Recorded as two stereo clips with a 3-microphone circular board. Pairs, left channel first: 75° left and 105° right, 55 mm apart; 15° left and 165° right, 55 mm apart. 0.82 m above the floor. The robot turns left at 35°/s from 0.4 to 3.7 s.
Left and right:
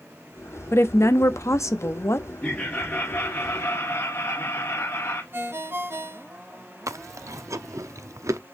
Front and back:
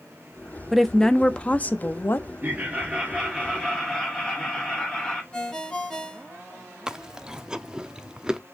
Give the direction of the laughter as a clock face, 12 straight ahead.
7 o'clock.